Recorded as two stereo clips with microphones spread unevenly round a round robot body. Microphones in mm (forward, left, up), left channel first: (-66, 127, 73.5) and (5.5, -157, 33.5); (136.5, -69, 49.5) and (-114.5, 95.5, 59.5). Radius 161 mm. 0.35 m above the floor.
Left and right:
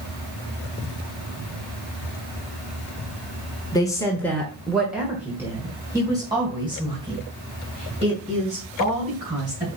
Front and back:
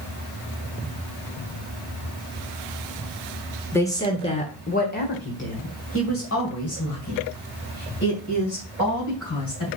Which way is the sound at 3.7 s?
30° left.